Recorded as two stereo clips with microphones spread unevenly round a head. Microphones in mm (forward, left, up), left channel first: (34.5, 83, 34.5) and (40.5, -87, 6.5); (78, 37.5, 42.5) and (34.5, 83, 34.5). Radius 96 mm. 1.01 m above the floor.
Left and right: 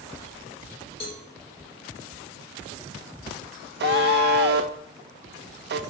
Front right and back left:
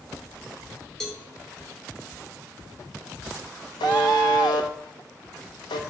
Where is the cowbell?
35° left, 1.7 m.